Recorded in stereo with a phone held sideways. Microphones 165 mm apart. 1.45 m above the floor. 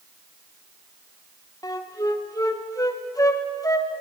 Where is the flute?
20° left (ahead or behind), 0.7 m.